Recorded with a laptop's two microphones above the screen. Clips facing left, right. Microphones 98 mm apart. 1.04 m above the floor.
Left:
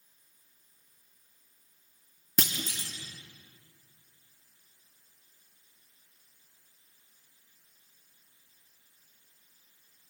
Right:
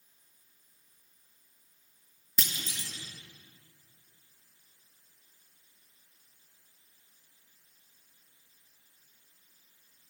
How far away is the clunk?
About 2.0 m.